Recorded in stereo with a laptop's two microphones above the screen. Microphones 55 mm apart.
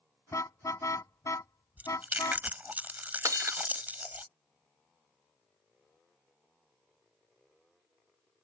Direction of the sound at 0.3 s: 70° left (ahead or behind).